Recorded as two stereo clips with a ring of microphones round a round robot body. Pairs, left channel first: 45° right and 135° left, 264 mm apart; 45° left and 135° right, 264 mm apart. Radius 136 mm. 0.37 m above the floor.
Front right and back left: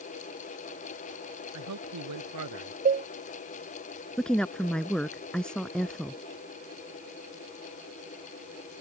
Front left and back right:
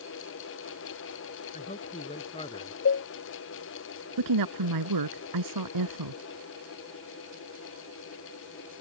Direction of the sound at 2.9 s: 80° left.